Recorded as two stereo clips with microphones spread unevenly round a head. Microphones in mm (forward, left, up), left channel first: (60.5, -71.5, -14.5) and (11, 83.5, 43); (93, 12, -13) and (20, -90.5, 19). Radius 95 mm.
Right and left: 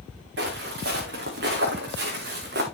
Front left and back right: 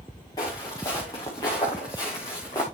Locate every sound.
0.4 s footsteps: 130° left, 7 m